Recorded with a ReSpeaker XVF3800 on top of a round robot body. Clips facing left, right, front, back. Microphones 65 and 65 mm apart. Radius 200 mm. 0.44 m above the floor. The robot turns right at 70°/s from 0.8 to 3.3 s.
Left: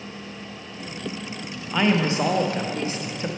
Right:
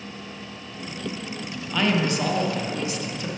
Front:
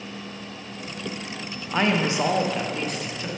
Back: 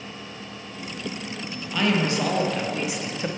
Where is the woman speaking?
20° left, 0.8 m; by 3.3 s 135° left, 0.8 m.